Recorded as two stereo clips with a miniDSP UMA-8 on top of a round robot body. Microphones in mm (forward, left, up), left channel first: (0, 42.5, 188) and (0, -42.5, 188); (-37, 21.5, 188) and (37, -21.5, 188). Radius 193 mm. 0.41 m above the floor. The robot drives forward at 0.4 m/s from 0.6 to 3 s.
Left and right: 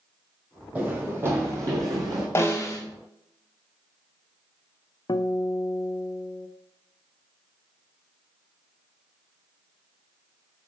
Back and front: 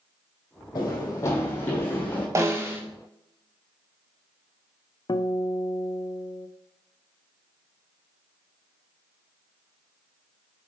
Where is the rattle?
I don't hear a rattle.